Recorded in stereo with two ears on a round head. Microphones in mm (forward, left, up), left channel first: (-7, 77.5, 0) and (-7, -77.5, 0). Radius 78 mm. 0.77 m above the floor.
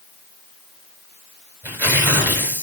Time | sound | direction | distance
1.6 | tearing paper | 10° right (ahead or behind) | 3 m